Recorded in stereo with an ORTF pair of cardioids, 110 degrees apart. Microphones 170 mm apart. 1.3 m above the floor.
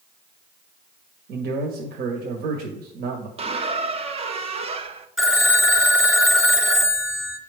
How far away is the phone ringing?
About 1.3 m.